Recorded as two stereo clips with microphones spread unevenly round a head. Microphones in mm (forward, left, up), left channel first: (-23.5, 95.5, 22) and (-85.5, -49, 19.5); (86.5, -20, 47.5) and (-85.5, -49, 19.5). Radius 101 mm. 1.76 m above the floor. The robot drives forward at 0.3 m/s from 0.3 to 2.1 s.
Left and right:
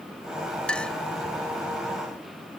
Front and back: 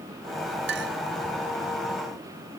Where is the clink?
150° left.